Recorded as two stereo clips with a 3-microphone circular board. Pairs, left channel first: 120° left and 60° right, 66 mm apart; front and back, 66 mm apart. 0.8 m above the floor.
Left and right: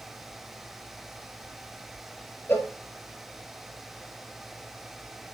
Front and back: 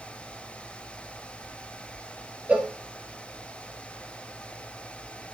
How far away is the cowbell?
About 1.2 m.